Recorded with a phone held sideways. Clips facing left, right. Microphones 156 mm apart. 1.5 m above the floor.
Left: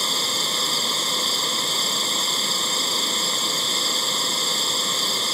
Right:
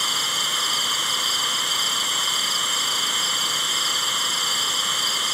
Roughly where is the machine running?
Left.